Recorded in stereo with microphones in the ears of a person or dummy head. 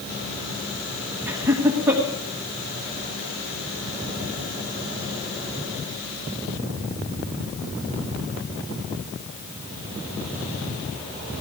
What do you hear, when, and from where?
1.3 s laughter: 10° right (ahead or behind), 1.8 m